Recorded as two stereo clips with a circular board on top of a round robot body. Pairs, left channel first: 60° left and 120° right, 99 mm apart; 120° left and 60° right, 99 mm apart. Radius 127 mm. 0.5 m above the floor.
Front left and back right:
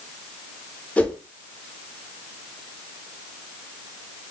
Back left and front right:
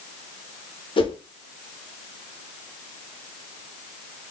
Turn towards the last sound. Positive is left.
turn(degrees=135)